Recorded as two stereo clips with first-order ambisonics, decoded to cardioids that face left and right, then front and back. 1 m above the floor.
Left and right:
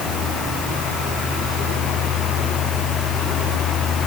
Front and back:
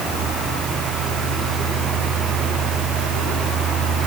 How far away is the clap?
No clap in this recording.